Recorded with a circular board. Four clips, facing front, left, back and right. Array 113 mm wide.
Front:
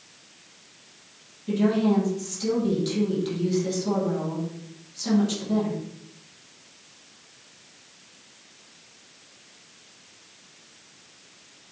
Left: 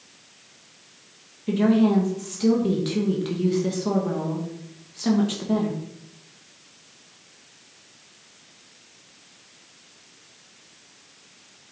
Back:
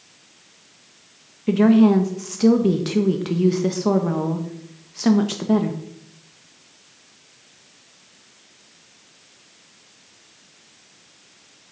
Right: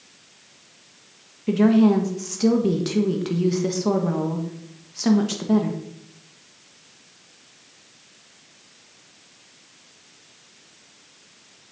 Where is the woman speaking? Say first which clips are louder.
Right 3 dB, back 8 dB; 160° right, 1.3 m.